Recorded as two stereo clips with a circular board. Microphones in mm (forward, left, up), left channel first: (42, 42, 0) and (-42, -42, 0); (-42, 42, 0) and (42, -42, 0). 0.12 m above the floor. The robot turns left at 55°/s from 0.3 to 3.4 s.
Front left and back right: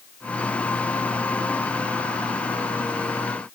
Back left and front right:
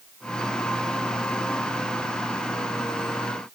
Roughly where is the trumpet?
I don't hear a trumpet.